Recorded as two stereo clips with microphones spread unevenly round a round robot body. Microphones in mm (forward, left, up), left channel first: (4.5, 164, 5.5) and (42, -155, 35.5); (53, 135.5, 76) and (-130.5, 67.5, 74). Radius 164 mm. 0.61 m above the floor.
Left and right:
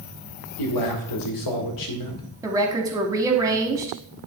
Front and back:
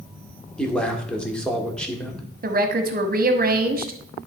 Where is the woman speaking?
165° right, 1.2 m.